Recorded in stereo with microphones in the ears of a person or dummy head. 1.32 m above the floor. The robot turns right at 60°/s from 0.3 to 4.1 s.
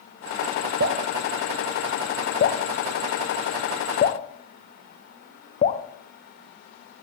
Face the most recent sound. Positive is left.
turn(degrees=40)  # may be behind; listen again after turning